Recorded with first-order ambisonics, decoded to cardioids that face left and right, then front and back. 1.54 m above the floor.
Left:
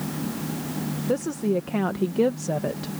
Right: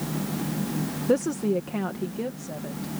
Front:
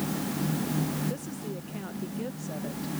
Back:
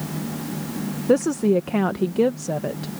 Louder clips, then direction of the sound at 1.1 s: Right 1 dB, back 18 dB; 170° right.